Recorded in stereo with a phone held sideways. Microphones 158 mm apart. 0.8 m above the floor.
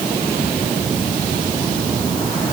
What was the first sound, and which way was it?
Only background noise.